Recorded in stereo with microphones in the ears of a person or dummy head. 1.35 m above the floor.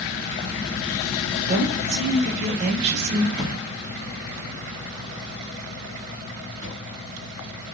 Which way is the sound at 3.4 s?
15° left (ahead or behind).